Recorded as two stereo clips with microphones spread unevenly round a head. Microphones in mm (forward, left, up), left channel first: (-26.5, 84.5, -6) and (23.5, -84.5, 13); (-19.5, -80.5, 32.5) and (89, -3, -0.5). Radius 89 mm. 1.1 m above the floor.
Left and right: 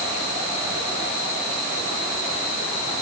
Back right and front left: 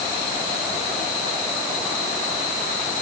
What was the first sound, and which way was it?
Only background noise.